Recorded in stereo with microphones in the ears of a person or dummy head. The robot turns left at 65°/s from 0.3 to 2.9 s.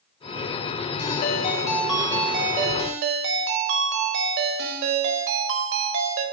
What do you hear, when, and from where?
1.0 s a ringtone: 60° left, 1.3 m; by 6.2 s 60° right, 1.3 m